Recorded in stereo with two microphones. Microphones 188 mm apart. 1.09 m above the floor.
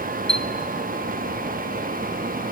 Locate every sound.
0.3 s a chime: 5° left (ahead or behind), 0.6 m